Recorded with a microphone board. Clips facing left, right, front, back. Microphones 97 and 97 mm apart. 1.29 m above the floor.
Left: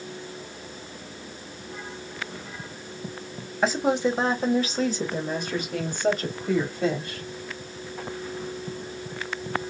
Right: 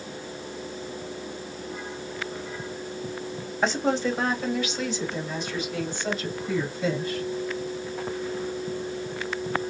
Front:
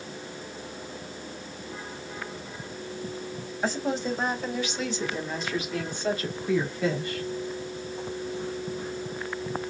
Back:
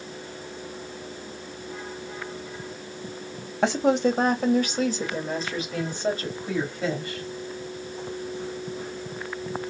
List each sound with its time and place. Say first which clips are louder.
3.6 s a woman speaking: left 2 dB, back 8 dB; straight behind, 1.3 m; by 7.2 s 115° left, 4 m